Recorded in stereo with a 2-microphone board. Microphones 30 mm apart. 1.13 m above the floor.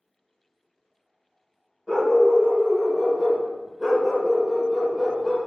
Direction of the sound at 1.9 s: 10° left (ahead or behind).